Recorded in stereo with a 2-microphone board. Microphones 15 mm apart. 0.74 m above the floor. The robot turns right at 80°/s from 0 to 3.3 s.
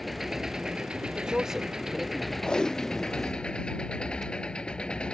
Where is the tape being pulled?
55° left (ahead or behind); by 5.2 s 10° right (ahead or behind).